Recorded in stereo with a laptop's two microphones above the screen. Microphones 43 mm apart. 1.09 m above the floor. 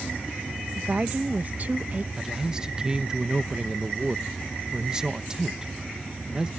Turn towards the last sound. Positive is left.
turn(degrees=-20)  # may be behind; listen again after turning